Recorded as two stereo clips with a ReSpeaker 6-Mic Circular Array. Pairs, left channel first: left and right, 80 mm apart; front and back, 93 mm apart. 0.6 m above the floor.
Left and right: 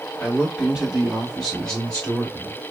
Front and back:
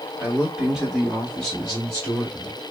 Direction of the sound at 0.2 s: 135° right.